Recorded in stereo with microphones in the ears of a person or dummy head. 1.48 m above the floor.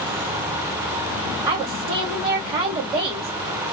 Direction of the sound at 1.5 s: 15° right (ahead or behind).